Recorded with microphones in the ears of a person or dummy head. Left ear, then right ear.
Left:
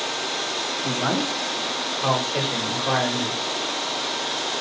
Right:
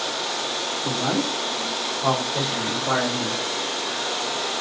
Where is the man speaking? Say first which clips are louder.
Even; 55° left (ahead or behind), 1.5 m; by 3.4 s 30° left (ahead or behind), 1.2 m.